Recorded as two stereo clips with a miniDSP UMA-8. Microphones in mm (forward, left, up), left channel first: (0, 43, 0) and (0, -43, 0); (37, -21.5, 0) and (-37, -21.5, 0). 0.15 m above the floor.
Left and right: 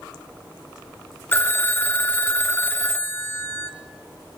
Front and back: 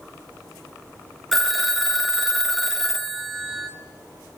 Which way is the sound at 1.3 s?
90° left.